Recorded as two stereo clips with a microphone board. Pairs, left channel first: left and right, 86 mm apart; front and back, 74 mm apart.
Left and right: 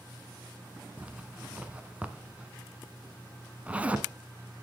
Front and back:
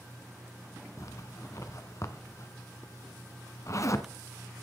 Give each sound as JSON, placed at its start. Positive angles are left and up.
{"t": 1.0, "sound": "a zipper", "azimuth_deg": -20, "distance_m": 1.2}